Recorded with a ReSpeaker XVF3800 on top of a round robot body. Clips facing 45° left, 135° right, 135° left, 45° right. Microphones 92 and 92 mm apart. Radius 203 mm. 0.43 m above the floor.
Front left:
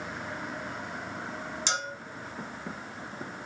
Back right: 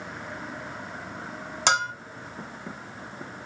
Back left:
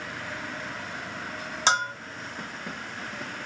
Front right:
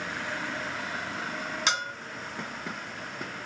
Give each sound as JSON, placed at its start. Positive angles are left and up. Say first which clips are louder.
{"t": 1.7, "sound": "a bell", "louder": "back right 11 dB, back left 7 dB", "azimuth_deg": -165, "distance_m": 1.0}